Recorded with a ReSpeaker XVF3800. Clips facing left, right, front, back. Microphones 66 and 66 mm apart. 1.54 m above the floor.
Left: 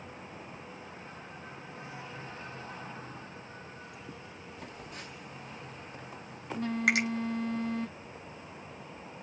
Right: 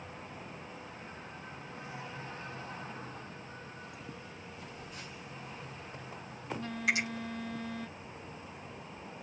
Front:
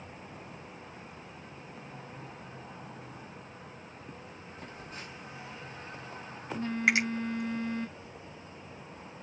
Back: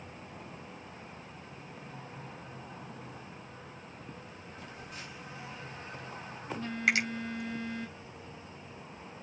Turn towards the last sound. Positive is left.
turn(degrees=65)